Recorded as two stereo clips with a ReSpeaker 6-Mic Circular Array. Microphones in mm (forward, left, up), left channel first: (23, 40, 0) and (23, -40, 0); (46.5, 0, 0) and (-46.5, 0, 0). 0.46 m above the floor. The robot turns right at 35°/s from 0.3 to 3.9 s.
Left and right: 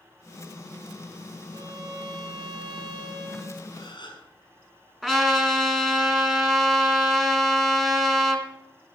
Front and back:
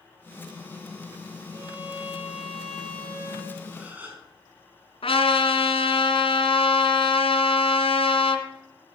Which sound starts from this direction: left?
A gasp, at 3.7 s.